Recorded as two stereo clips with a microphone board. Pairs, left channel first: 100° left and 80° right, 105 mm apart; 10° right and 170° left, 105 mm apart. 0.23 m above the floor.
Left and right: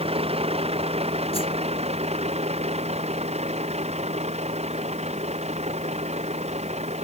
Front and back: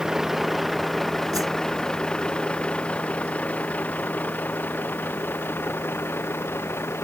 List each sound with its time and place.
0.0 s a vehicle: 105° right; by 7.0 s 80° right
1.3 s a whoosh: 115° left